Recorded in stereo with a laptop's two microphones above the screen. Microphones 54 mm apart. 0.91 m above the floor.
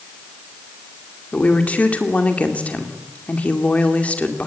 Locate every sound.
1.3 s a woman speaking: 25° left (ahead or behind), 2.5 m